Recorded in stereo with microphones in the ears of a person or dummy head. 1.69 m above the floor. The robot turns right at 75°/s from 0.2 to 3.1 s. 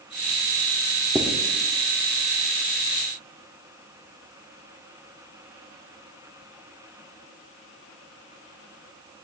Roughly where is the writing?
Centre.